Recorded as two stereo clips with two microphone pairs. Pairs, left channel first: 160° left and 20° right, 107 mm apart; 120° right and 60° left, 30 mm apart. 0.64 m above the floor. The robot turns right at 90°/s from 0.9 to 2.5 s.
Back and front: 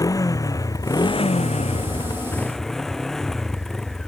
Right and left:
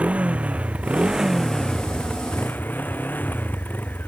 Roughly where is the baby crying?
I don't hear a baby crying.